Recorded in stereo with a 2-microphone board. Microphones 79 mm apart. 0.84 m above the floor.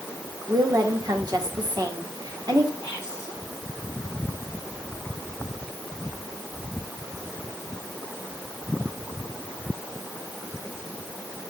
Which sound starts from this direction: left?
Whispering, at 2.8 s.